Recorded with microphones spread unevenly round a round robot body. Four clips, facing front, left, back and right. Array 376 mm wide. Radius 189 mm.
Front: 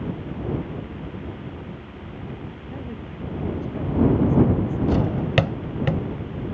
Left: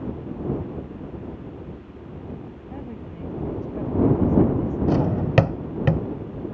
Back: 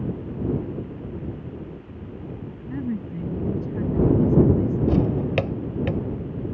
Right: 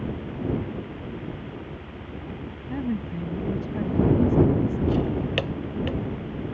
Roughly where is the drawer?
Ahead left.